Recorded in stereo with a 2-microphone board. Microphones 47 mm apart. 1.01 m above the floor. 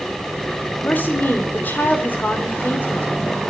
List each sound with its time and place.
0.8 s a woman speaking: 40° left (ahead or behind), 4.5 m